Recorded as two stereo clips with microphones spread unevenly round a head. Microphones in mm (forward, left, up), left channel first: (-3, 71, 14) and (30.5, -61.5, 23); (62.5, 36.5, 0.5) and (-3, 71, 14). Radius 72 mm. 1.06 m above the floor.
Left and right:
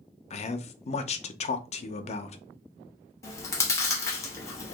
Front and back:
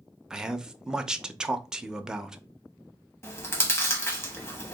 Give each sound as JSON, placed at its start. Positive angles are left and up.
{"t": 0.3, "sound": "a man speaking", "azimuth_deg": 65, "distance_m": 0.6}
{"t": 3.2, "sound": "chewing", "azimuth_deg": 35, "distance_m": 1.0}